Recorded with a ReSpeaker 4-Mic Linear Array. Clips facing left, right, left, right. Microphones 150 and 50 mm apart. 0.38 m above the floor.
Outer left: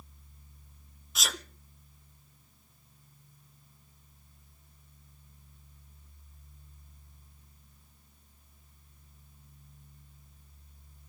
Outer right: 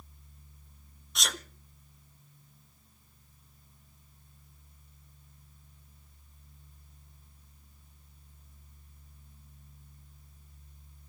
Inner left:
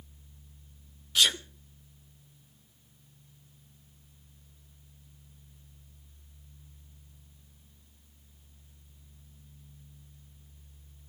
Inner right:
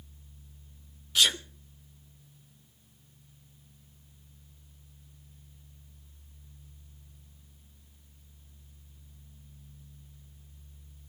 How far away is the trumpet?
I don't hear a trumpet.